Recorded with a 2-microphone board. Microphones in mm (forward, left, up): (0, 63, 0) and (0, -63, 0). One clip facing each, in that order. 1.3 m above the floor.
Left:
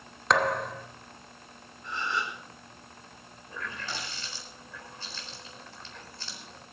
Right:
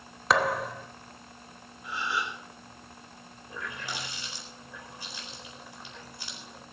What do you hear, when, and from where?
0.3 s a thud: 5° right (ahead or behind), 0.8 m
1.8 s a gasp: 10° right (ahead or behind), 3.5 m
3.5 s a running tap: 15° right (ahead or behind), 4 m